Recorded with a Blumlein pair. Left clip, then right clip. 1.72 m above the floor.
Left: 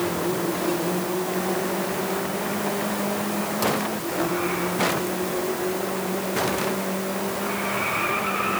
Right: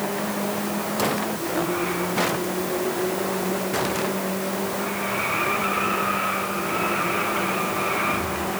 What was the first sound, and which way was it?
Only background noise.